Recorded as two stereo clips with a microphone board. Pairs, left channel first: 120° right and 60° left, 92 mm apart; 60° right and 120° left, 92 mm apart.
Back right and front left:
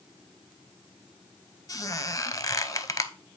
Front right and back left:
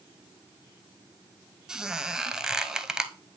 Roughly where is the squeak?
Behind.